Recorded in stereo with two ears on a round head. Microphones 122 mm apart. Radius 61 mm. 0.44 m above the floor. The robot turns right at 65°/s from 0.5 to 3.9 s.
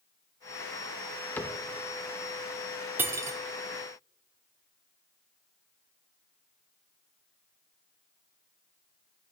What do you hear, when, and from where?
1.4 s a cupboard door: 15° left (ahead or behind), 0.6 m; by 1.6 s 25° left (ahead or behind), 0.6 m
3.0 s cutlery clinking: 15° right (ahead or behind), 0.5 m; by 3.4 s 25° right (ahead or behind), 0.5 m